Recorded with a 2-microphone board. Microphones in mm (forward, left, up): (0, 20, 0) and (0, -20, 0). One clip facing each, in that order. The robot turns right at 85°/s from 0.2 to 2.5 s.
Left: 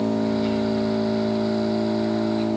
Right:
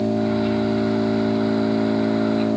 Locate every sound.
0.0 s an engine running: 90° left, 5.5 m; by 2.6 s 75° right, 5.5 m